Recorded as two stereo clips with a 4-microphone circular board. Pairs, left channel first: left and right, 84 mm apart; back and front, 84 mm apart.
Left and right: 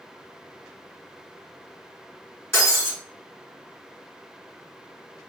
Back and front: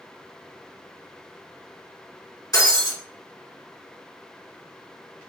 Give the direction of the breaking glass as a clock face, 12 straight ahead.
7 o'clock.